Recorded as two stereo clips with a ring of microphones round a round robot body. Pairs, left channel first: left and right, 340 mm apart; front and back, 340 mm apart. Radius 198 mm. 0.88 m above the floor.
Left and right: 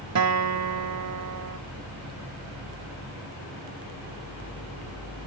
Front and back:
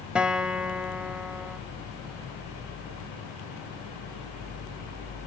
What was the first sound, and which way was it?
A guitar, 95° right.